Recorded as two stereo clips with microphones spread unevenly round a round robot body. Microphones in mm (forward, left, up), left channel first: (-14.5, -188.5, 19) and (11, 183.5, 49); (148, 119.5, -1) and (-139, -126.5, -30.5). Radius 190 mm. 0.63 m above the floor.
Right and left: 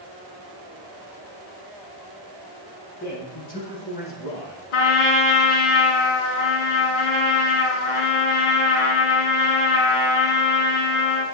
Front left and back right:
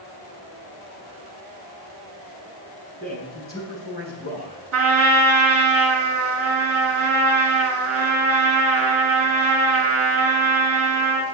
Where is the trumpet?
85° right, 3 m.